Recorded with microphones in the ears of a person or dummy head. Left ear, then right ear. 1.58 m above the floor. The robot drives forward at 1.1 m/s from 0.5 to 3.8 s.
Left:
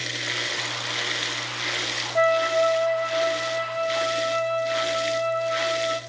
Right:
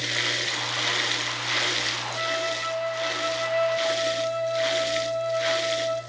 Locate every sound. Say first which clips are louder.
2.1 s a flute: left 12 dB; 45° left (ahead or behind), 0.7 m; by 6.0 s 10° left (ahead or behind), 2.5 m